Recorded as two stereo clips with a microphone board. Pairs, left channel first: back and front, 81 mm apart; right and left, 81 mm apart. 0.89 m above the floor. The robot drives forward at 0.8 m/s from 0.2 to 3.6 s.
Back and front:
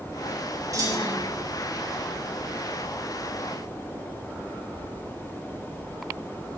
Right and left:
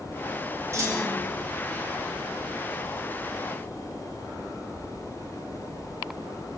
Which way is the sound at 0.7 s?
40° left.